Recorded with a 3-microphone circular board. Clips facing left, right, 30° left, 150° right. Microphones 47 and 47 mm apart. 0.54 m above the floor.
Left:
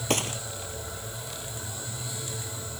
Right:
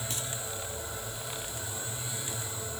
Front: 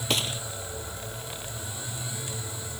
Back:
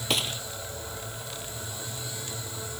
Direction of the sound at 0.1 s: 120° left.